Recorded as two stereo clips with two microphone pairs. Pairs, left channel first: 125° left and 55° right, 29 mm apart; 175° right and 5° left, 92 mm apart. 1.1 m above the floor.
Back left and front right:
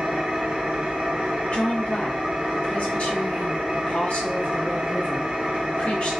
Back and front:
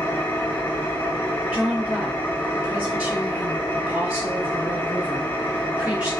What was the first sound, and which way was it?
An engine running, 110° right.